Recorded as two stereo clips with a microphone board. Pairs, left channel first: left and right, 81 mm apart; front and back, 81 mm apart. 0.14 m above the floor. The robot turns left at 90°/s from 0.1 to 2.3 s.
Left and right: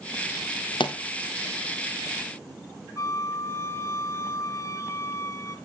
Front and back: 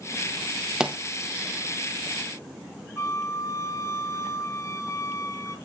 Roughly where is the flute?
Ahead left.